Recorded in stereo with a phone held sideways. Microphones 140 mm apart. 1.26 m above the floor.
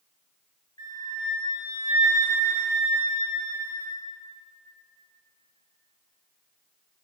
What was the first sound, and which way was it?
A flute, 35° left (ahead or behind).